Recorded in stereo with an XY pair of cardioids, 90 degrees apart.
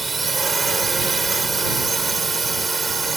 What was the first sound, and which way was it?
A drone, 40° right.